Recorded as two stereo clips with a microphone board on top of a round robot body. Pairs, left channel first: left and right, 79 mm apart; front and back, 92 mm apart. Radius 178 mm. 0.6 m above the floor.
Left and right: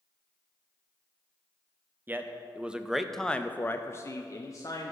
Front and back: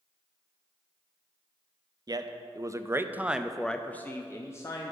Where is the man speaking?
150° right, 1.0 m; by 4.9 s 50° left, 1.1 m.